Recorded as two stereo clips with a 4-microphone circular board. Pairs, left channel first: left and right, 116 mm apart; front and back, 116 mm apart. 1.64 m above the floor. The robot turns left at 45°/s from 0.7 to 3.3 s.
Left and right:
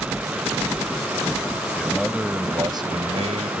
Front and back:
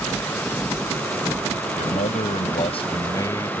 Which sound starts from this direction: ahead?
A man speaking, at 1.8 s.